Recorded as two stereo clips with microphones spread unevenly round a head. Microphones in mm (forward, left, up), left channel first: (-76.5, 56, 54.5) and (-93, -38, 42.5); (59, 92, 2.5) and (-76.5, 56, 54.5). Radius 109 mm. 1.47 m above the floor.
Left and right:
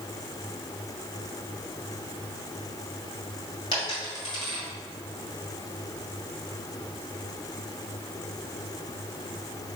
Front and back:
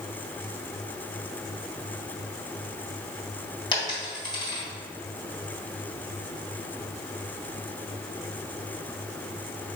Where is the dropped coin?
85° left, 1.9 m.